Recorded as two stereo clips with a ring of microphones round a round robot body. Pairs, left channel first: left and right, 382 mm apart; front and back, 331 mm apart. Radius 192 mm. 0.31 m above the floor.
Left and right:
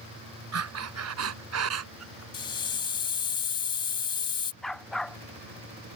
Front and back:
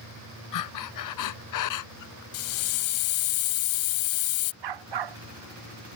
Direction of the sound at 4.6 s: Straight behind.